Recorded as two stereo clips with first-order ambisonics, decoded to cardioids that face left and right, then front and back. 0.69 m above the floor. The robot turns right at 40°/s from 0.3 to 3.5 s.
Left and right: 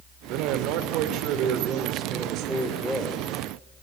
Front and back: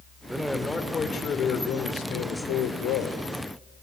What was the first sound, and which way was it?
A man speaking, 100° right.